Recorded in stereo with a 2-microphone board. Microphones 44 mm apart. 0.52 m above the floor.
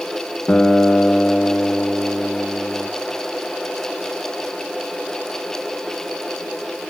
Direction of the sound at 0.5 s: 30° left (ahead or behind).